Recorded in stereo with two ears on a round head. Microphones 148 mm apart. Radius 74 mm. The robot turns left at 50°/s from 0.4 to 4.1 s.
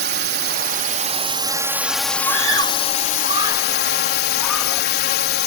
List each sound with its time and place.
0.0 s a drone: 100° right; by 5.5 s 75° left
2.2 s a scream: 90° right; by 4.9 s 5° left (ahead or behind)